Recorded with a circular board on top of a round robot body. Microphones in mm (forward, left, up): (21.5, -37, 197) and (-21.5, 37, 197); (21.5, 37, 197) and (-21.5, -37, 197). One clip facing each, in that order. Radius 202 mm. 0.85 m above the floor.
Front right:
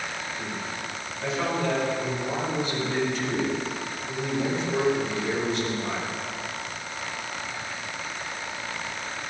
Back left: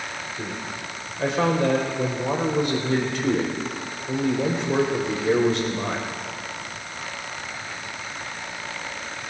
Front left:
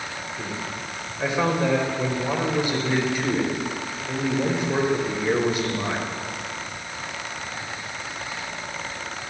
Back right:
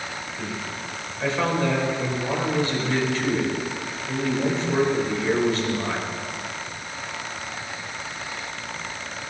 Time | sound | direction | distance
0.4 | a man speaking | 135° left | 4 m